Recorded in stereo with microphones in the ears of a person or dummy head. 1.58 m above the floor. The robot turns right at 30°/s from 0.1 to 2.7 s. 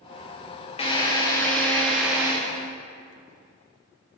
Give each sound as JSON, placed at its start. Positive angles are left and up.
{"t": 0.8, "sound": "a drill", "azimuth_deg": 150, "distance_m": 0.8}